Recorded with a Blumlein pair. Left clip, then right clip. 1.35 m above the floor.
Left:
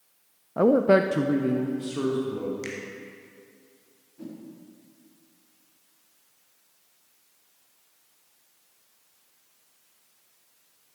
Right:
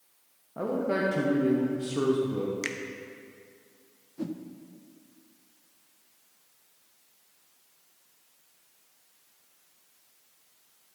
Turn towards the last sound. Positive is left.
turn(degrees=-65)